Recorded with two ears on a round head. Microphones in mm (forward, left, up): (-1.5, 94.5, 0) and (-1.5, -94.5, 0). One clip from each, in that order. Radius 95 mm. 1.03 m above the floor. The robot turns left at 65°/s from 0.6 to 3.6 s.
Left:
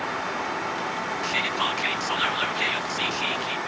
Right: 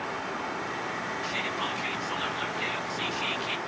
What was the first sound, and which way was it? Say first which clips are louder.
Whispering: left 7 dB; 150° left.